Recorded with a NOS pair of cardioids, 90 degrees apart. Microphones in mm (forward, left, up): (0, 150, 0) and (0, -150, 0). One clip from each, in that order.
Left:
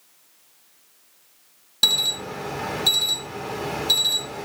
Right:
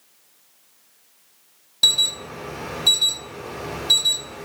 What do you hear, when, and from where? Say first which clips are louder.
1.8 s an alarm: right 2 dB; 30° left, 3.5 m